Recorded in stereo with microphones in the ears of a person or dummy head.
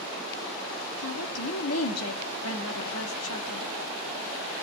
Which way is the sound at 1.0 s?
70° left (ahead or behind).